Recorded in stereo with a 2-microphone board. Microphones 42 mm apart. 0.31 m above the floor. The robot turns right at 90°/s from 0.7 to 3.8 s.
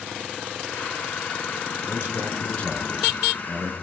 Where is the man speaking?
80° left, 4.5 m; by 3.7 s 115° right, 4.5 m.